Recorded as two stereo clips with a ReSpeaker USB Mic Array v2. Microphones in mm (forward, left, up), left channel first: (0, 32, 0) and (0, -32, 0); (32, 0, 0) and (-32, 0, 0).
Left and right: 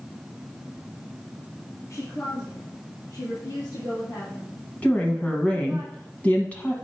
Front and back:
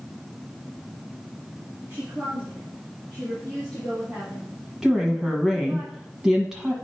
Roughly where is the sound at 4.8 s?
Behind left.